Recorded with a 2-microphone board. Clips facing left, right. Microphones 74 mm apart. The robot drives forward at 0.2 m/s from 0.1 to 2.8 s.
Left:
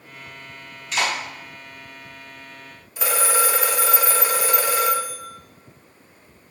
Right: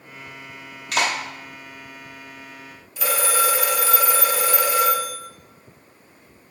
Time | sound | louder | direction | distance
0.9 | a clap | right 1 dB | 75° right (ahead or behind) | 1.0 m
3.0 | a phone ringing | even | 35° left (ahead or behind) | 0.8 m